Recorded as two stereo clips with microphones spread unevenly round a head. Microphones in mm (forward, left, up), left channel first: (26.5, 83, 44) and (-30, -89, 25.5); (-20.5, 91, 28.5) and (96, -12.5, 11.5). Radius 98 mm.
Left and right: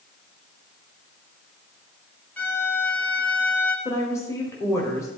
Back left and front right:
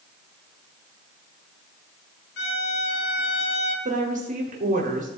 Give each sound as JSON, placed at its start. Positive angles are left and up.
{"t": 2.4, "sound": "a violin", "azimuth_deg": 150, "distance_m": 1.2}
{"t": 3.9, "sound": "a woman speaking", "azimuth_deg": -5, "distance_m": 1.4}